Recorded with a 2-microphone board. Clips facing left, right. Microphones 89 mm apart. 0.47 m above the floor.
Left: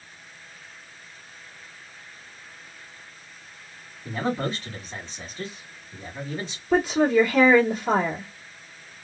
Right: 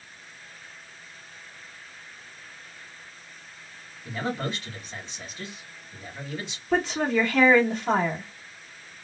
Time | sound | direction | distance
4.0 | a man speaking | 35° left (ahead or behind) | 1.3 m
6.7 | a woman speaking | 10° left (ahead or behind) | 1.4 m